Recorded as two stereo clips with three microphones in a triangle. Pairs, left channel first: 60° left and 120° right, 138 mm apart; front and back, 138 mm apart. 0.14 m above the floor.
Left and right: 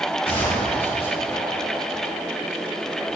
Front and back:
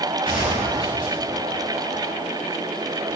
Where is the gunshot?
10° left, 6.5 m.